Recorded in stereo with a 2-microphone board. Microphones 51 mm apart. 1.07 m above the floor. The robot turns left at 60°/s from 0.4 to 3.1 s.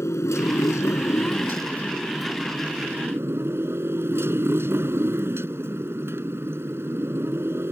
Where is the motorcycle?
110° left; by 7.7 s 50° right.